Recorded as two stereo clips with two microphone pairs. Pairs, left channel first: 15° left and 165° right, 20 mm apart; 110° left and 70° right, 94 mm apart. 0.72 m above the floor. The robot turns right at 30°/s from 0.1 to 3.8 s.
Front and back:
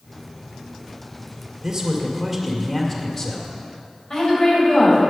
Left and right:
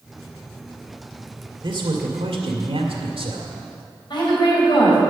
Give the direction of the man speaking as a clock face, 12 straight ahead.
3 o'clock.